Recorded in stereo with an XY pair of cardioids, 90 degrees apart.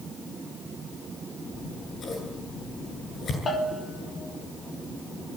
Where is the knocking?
No knocking in this recording.